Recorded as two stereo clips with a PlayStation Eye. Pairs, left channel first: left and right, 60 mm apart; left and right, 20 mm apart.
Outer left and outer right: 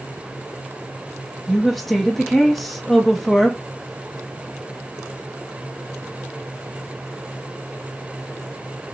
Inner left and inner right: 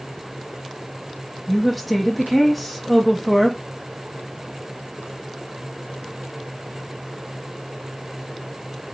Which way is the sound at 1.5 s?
5° left (ahead or behind).